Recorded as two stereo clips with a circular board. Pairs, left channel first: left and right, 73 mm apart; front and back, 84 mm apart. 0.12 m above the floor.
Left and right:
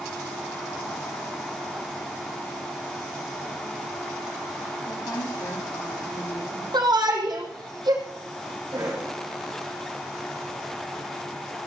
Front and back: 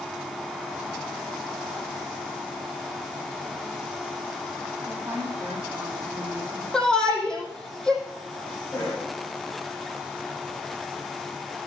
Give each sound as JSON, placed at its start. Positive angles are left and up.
{"t": 4.9, "sound": "a woman speaking", "azimuth_deg": 120, "distance_m": 4.5}
{"t": 6.7, "sound": "a shout", "azimuth_deg": -80, "distance_m": 5.5}
{"t": 8.7, "sound": "a cough", "azimuth_deg": -55, "distance_m": 6.5}